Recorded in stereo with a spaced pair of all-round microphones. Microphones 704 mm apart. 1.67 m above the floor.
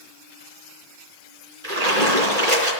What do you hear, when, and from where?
1.6 s a splash: 65° right (ahead or behind), 3.5 m